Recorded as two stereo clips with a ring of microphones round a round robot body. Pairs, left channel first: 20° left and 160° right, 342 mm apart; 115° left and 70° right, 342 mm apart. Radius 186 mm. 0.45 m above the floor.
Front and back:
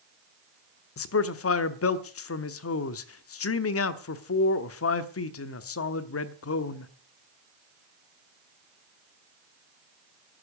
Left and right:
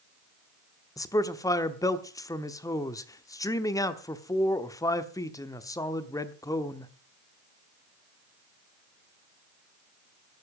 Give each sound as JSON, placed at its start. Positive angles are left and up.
{"t": 1.0, "sound": "a man speaking", "azimuth_deg": 35, "distance_m": 1.0}